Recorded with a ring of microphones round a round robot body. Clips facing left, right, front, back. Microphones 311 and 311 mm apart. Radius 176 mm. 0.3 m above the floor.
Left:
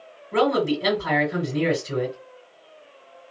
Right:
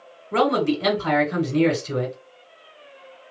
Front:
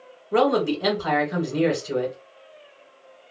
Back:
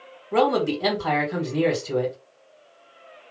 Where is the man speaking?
90° right, 2.5 m.